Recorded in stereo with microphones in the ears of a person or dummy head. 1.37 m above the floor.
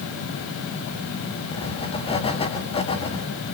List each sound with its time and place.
1.5 s writing: 20° left (ahead or behind), 2.5 m